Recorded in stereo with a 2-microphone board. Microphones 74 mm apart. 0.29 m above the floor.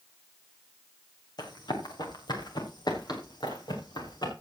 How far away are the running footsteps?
About 5 m.